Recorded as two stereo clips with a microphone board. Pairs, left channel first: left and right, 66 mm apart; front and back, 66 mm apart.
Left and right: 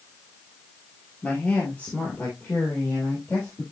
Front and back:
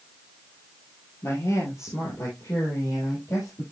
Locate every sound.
1.2 s a woman speaking: 25° left, 2.5 m